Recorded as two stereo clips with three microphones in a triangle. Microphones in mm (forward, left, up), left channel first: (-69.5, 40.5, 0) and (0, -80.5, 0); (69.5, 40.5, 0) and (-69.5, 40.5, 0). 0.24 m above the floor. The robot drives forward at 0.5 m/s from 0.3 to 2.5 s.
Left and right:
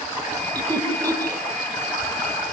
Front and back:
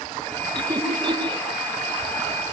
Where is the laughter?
120° right, 8 m; by 1.4 s 125° right, 8.5 m.